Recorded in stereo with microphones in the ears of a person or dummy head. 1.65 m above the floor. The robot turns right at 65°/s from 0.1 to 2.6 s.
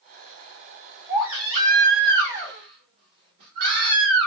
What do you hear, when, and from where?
1.1 s a baby crying: straight behind, 1.2 m; by 4.3 s 80° right, 1.2 m